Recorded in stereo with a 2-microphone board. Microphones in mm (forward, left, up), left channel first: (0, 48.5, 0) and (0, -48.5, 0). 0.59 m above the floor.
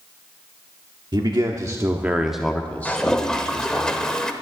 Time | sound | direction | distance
1.1 | a man speaking | 50° right (ahead or behind) | 1.1 m
2.9 | a toilet flushing | 5° left (ahead or behind) | 1.0 m